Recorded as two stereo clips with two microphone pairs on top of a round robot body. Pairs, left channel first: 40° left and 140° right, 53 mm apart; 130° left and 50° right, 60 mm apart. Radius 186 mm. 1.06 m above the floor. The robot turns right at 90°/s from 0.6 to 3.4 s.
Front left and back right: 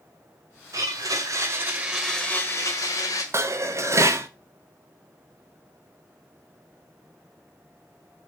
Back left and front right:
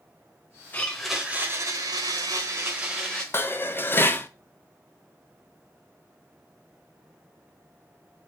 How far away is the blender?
About 1.6 m.